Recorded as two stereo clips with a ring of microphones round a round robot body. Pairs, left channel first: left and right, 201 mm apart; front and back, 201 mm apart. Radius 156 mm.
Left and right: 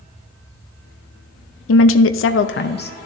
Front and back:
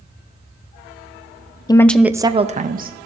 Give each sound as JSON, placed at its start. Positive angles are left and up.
{"t": 1.7, "sound": "a woman speaking", "azimuth_deg": 75, "distance_m": 0.6}